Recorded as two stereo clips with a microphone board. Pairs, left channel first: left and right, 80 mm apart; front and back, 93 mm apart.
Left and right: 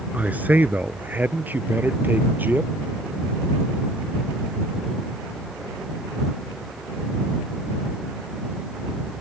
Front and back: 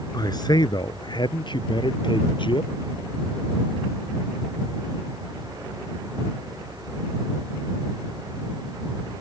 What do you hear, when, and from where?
0.1 s a man speaking: 25° right